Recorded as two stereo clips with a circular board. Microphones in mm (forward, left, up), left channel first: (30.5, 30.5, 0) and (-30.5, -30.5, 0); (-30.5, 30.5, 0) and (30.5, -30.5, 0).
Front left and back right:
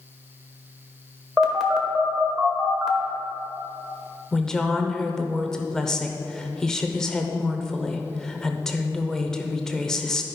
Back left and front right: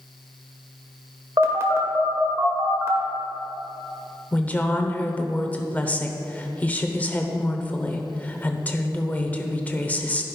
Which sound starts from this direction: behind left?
A woman speaking, at 4.3 s.